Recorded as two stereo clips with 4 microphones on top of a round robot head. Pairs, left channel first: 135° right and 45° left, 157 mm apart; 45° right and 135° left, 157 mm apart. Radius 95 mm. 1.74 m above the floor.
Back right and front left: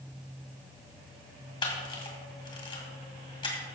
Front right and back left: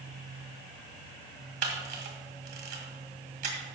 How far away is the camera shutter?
About 2.5 m.